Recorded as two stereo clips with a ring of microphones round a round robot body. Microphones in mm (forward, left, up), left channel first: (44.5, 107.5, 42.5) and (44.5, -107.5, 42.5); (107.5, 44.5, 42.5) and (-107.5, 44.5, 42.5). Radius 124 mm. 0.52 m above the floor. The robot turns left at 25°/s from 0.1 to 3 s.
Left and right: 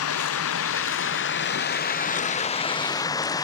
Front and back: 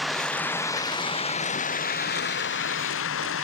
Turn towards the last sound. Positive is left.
turn(degrees=15)